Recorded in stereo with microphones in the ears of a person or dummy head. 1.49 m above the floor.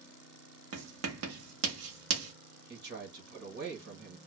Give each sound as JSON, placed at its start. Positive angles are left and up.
{"t": 0.7, "sound": "writing", "side_deg": -75, "distance_m": 0.7}
{"t": 2.7, "sound": "a man speaking", "side_deg": -75, "distance_m": 1.2}